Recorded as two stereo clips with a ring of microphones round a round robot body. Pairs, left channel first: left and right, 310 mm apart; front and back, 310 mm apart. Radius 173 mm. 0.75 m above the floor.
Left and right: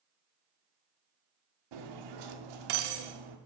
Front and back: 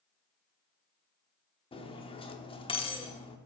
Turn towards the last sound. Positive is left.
turn(degrees=-75)